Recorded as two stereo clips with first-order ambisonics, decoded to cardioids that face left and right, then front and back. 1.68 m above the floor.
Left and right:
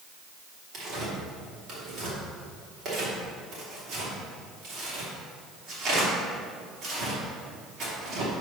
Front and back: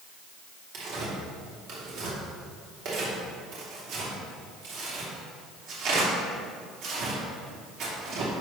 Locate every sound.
0.7 s tearing paper: 140° right, 3 m